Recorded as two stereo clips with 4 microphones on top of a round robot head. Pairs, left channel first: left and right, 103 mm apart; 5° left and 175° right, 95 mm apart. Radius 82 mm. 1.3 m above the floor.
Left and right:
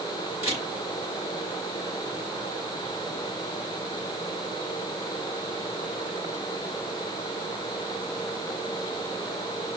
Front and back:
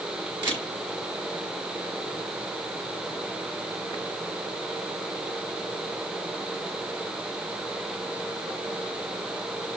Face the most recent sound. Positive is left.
turn(degrees=150)